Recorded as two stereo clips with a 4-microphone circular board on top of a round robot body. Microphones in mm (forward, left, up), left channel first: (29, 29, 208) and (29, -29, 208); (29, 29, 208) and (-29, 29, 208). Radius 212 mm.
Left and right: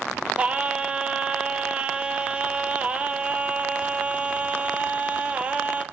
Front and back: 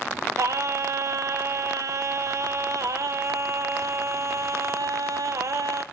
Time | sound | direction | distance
0.4 | singing | 160° right | 1.1 m